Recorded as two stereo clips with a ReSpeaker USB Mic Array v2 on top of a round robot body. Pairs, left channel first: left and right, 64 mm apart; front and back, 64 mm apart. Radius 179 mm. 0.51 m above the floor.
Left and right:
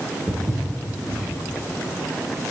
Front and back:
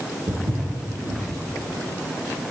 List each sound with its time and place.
0.3 s footsteps: 155° right, 4.5 m